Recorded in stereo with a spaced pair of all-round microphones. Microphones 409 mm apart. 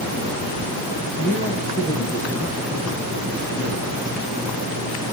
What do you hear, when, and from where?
1.2 s a man speaking: 10° right (ahead or behind), 8.5 m